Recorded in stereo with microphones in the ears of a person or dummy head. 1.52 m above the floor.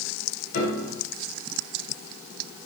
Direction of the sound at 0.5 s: 60° left (ahead or behind).